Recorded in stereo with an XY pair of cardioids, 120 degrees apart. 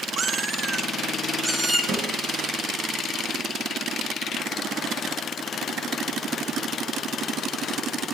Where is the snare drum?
65° right, 7 m.